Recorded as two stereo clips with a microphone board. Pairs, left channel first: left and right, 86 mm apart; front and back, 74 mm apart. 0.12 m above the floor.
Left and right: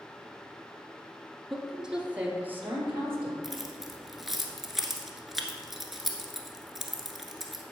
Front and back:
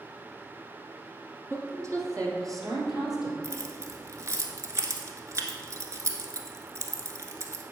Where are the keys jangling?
175° right, 1.2 m.